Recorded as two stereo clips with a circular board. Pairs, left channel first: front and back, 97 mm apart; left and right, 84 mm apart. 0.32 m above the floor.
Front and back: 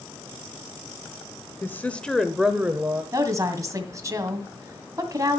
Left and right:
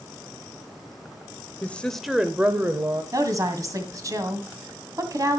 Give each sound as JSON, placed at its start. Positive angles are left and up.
{"t": 1.6, "sound": "a woman speaking", "azimuth_deg": 40, "distance_m": 0.9}
{"t": 3.1, "sound": "a woman speaking", "azimuth_deg": -130, "distance_m": 2.0}